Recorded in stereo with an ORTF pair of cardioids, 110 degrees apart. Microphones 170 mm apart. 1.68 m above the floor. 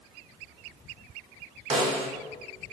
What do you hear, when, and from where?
1.7 s a snare drum: 40° right, 1.3 m